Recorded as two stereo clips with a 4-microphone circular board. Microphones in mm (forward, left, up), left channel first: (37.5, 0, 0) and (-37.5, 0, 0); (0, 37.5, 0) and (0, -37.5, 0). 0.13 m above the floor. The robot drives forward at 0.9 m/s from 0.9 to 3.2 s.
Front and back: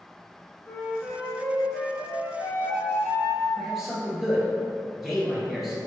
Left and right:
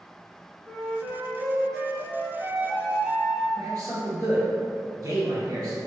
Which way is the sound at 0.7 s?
15° left.